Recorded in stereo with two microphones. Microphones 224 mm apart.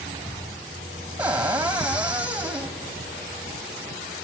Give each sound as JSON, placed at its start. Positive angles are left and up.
{"t": 1.2, "sound": "a cupboard door", "side_deg": -5, "distance_m": 2.5}